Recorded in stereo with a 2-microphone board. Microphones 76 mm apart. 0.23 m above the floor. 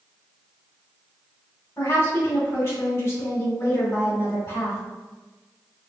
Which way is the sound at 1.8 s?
30° left (ahead or behind).